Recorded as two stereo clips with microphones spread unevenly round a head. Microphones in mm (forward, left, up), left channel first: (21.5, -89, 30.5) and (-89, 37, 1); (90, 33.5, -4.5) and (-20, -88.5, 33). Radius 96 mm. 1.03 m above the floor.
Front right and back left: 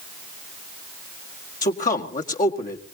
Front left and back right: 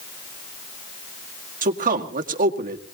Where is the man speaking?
90° right, 1.9 m.